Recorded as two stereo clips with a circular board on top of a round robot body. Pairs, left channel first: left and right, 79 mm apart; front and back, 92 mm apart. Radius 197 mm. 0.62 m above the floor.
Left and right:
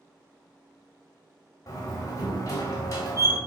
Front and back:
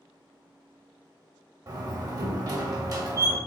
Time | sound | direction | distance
1.7 | a door slam | 135° left | 1.9 m